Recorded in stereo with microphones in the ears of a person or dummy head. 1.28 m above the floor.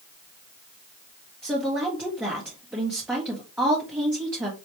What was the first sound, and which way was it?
A woman speaking, 10° right (ahead or behind).